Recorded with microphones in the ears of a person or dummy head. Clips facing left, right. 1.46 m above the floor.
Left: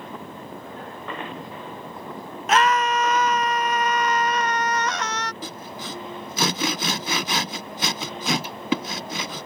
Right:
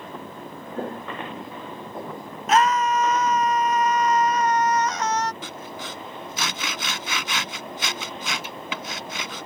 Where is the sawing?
40° left (ahead or behind).